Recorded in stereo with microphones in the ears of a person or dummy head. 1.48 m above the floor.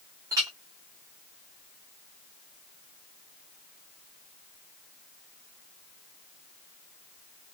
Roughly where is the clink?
Centre.